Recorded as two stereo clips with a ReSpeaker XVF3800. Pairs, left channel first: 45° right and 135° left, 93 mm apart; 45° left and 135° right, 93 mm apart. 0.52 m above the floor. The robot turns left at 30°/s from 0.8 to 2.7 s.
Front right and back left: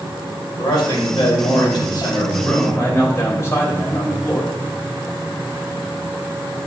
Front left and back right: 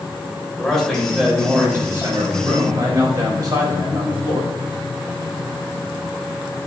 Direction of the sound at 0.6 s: 40° right.